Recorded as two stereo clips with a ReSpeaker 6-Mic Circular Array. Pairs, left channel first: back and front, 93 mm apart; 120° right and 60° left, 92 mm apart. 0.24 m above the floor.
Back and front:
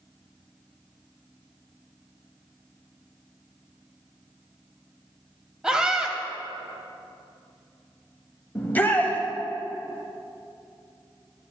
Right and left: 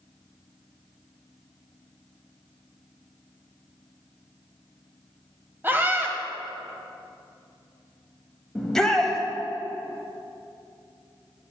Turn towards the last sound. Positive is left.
turn(degrees=165)